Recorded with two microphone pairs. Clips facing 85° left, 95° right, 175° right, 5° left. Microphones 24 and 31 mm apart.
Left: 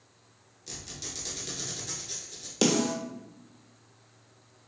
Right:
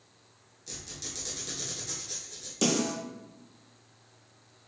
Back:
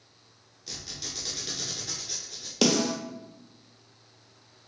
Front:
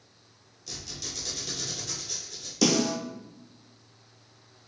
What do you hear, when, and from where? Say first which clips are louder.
0.7 s a squeak: left 1 dB, even; 155° left, 1.1 m
2.6 s a snare drum: left 2 dB, even; 145° left, 0.9 m